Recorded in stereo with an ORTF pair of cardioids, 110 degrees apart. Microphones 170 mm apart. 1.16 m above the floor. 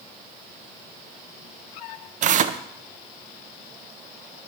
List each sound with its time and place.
2.2 s tearing paper: 50° right, 0.5 m